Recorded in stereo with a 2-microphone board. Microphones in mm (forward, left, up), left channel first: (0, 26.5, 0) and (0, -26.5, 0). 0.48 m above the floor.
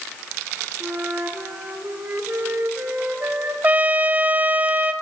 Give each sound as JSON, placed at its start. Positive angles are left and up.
{"t": 0.8, "sound": "a flute", "side_deg": -45, "distance_m": 2.5}
{"t": 3.6, "sound": "a trumpet", "side_deg": -30, "distance_m": 0.8}